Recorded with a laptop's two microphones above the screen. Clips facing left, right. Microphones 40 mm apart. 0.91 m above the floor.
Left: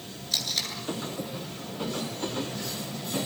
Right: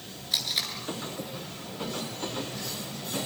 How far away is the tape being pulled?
About 9 m.